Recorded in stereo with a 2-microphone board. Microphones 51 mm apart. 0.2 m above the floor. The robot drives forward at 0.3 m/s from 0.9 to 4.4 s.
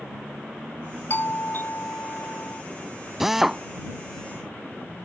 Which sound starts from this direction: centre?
A drill, at 3.2 s.